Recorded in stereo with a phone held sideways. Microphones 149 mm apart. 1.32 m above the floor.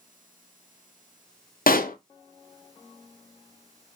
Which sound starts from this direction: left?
A pop, at 1.7 s.